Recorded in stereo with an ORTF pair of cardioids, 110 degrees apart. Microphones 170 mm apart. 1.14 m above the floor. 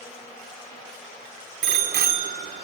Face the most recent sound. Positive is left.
turn(degrees=-70)